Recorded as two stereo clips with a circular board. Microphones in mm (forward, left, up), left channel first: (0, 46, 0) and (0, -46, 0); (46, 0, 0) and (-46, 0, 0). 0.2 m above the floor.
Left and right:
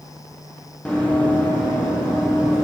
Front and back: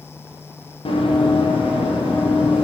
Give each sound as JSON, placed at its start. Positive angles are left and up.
{"t": 0.8, "sound": "running footsteps", "azimuth_deg": 15, "distance_m": 3.0}